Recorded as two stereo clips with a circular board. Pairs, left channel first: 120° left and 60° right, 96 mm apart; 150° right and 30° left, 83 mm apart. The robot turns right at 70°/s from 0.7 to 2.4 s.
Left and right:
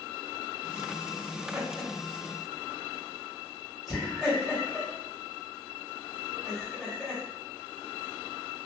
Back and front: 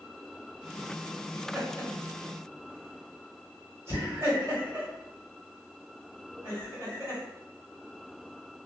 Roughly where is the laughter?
Ahead right.